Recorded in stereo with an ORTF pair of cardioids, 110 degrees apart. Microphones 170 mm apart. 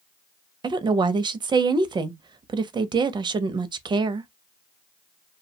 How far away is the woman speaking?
About 0.5 m.